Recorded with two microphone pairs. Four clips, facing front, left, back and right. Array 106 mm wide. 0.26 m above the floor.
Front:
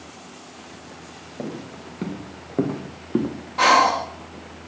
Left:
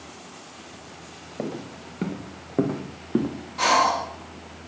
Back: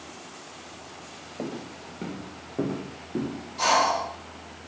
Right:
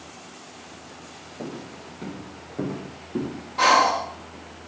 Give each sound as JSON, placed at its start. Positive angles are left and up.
{"t": 1.4, "sound": "footsteps", "azimuth_deg": 100, "distance_m": 2.5}
{"t": 3.6, "sound": "breathing", "azimuth_deg": -20, "distance_m": 1.0}